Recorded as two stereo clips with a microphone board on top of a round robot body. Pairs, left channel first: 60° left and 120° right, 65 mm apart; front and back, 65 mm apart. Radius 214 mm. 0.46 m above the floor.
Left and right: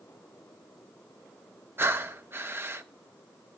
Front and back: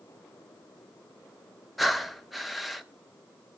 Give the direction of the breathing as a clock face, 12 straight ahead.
3 o'clock.